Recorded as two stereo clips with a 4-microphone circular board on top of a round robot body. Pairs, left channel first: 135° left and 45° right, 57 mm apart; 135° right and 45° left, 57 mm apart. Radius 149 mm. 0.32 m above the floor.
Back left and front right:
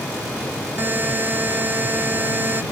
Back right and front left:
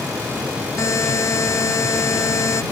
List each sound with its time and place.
0.8 s a buzzer: 100° right